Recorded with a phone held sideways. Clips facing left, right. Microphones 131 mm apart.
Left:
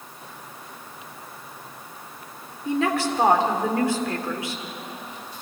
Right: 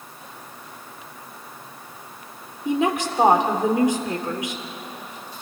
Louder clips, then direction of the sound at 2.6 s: Right 1 dB; 20° right (ahead or behind).